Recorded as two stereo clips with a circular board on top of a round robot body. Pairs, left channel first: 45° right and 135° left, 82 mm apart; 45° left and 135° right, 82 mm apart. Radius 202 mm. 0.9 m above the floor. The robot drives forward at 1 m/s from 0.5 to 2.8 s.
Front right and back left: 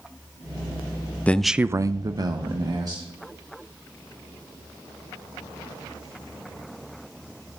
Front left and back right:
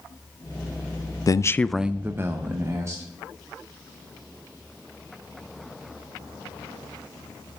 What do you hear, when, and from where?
1.3 s a man speaking: 25° left, 0.6 m; by 3.0 s 175° left, 1.3 m